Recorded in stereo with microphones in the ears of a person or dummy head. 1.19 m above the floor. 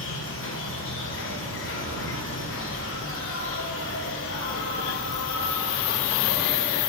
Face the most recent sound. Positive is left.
turn(degrees=65)  # may be behind; listen again after turning